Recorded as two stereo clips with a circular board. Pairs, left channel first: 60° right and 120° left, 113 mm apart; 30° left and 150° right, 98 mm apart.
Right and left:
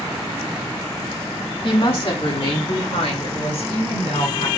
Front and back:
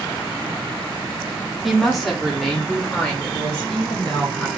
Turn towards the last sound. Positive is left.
turn(degrees=-55)